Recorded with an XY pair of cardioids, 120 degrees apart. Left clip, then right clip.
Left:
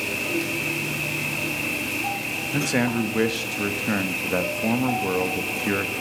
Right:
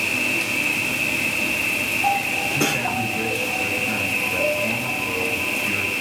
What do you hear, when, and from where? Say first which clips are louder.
0.0 s an insect: right 4 dB; 30° right, 1.0 m
2.5 s a man speaking: right 2 dB; 60° left, 1.5 m